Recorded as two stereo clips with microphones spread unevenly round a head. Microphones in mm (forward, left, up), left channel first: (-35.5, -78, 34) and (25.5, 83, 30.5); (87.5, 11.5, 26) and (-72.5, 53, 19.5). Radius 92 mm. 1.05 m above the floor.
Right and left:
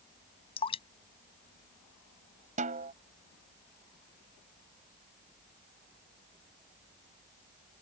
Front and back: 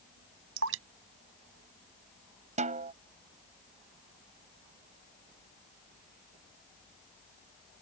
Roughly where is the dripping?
Behind.